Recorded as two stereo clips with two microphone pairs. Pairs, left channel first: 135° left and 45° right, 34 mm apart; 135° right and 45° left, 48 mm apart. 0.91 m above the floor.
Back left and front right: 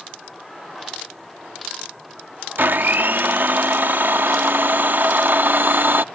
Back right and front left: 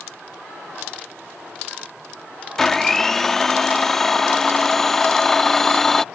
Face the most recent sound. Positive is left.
turn(degrees=-50)